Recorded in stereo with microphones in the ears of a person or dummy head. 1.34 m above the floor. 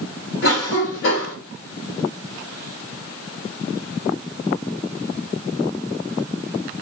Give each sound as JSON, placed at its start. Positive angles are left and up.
{"t": 0.4, "sound": "a cough", "side_deg": 65, "distance_m": 0.9}